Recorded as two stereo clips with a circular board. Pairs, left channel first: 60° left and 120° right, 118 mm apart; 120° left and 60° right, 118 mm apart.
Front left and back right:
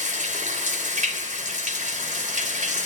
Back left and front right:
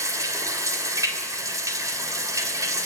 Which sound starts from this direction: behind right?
Running water, at 0.0 s.